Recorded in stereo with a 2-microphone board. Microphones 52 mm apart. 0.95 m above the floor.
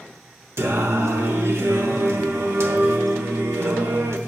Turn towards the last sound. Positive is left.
turn(degrees=-65)  # may be behind; listen again after turning